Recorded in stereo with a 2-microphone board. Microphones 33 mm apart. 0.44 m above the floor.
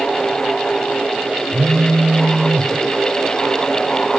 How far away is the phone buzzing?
About 3 m.